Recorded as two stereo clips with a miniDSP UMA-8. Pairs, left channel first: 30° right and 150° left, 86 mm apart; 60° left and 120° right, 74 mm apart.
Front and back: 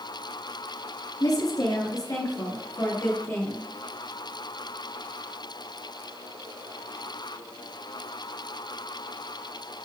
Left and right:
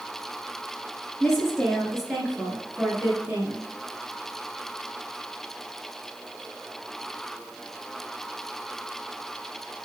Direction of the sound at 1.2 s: 20° right.